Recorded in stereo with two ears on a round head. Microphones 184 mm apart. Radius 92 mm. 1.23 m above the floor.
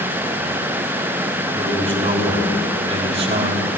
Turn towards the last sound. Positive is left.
turn(degrees=-35)  # may be behind; listen again after turning